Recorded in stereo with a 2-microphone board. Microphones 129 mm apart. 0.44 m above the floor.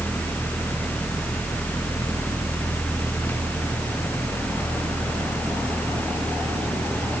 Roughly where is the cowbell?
No cowbell in this recording.